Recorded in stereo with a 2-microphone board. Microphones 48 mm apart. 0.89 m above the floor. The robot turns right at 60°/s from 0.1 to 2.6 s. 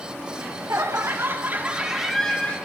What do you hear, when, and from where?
0.4 s laughter: 105° right, 2.0 m; by 2.6 s 30° left, 2.0 m